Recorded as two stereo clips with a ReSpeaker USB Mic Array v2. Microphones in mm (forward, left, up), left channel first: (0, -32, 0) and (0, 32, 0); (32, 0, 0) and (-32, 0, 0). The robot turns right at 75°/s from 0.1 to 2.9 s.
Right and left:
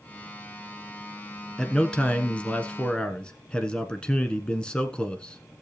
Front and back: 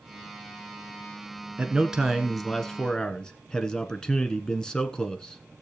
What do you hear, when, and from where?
1.6 s a man speaking: 150° right, 1.2 m; by 5.6 s 50° right, 1.2 m